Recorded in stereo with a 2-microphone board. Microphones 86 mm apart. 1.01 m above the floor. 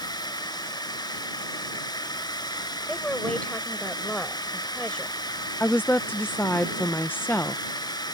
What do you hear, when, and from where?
0.0 s a drone: 55° left (ahead or behind)
2.9 s a woman speaking: 15° left (ahead or behind)
5.6 s a woman speaking: 25° left (ahead or behind)